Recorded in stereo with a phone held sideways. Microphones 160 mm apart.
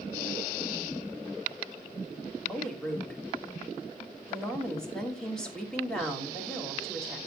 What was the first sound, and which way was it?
A woman speaking, 5° left (ahead or behind).